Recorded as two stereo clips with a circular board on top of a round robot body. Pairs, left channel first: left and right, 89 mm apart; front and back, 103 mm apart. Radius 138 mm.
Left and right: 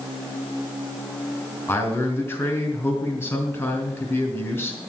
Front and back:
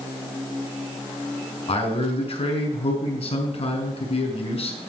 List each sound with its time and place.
1.7 s a man speaking: 20° left, 3 m